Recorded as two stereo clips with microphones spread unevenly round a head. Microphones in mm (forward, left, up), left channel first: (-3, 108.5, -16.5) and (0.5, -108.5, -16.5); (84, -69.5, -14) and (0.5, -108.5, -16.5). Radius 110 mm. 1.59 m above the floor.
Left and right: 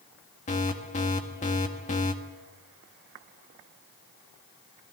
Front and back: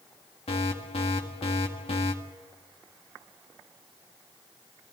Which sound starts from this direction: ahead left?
An alarm, at 0.5 s.